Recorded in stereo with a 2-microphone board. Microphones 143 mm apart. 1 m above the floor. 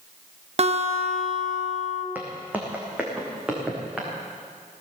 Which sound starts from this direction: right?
A guitar, at 0.6 s.